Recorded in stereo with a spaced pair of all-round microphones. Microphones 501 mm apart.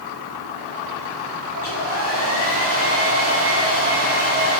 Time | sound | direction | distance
1.6 | a hair dryer | 25° left (ahead or behind) | 5.5 m